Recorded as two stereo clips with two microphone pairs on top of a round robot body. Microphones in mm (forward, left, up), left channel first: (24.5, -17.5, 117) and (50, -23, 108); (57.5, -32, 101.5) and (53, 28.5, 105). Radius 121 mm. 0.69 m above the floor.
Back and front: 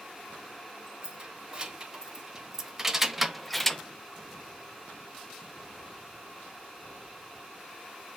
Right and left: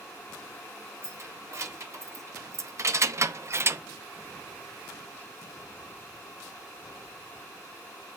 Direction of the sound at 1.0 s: 50° left.